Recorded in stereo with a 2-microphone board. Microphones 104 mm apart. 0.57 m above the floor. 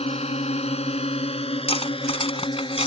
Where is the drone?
75° left (ahead or behind); by 2.9 s 50° left (ahead or behind).